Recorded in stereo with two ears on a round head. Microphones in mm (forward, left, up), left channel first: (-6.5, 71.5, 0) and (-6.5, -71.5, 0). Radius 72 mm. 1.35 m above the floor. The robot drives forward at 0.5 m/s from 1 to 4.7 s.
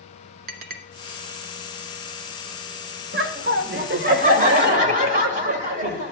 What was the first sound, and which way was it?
A clink, 60° right (ahead or behind).